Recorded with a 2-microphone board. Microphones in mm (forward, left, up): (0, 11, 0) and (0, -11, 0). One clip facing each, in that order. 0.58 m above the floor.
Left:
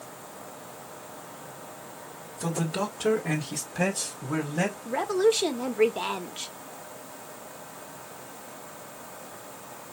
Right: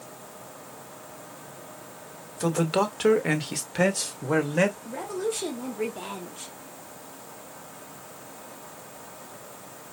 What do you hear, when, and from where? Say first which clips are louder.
2.4 s a man speaking: right 5 dB; 45° right (ahead or behind), 1.7 m; by 4.8 s 60° right (ahead or behind), 2 m
4.8 s a woman speaking: left 7 dB; 40° left (ahead or behind), 1.0 m